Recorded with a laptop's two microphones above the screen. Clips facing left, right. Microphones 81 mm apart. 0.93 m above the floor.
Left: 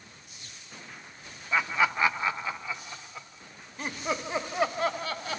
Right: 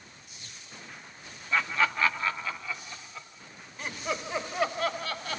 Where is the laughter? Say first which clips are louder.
Left 1 dB; 10° left (ahead or behind), 0.6 m; by 5.4 s 20° left (ahead or behind), 2.5 m.